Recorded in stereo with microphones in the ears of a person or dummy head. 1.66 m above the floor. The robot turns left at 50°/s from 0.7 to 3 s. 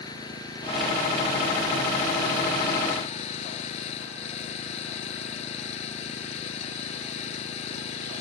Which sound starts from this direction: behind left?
An engine running, at 0.0 s.